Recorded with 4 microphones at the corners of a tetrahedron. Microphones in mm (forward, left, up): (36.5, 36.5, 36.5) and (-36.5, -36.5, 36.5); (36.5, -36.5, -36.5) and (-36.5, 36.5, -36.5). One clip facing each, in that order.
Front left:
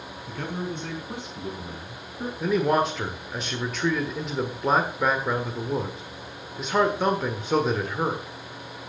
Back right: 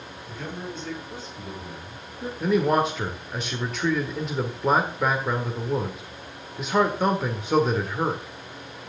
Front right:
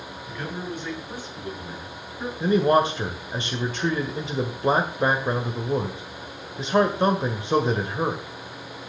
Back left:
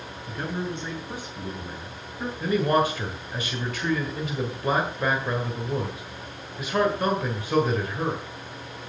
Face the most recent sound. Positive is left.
turn(degrees=-45)